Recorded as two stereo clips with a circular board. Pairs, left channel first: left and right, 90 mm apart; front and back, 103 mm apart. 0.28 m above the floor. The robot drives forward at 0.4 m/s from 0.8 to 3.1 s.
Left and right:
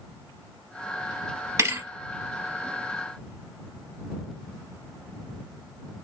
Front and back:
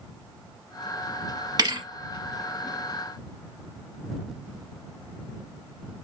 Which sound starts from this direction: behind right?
A thud, at 1.6 s.